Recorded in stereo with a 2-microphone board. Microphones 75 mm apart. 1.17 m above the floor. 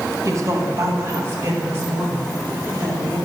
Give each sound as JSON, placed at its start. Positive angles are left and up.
{"t": 0.2, "sound": "a woman speaking", "side_deg": -45, "distance_m": 1.5}